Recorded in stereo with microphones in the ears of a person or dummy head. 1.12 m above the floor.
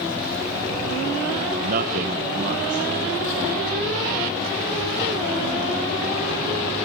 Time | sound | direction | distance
1.6 | a man speaking | 45° right (ahead or behind) | 1.0 m